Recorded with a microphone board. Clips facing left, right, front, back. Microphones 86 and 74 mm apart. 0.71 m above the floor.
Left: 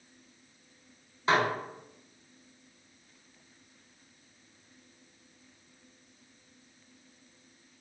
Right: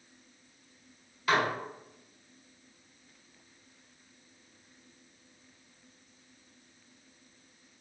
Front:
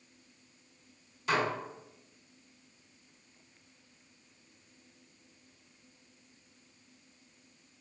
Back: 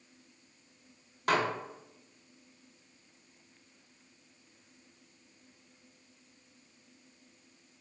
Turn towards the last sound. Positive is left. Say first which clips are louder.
# left 1 dB, back 1 dB
turn(degrees=150)